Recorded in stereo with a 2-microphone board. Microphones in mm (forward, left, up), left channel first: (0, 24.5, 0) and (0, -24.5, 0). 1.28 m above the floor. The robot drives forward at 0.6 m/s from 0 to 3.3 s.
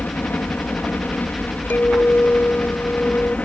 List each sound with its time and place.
0.0 s a helicopter: 40° left (ahead or behind); by 3.5 s 30° left (ahead or behind)
1.7 s a clink: 40° left (ahead or behind); by 3.4 s 35° left (ahead or behind)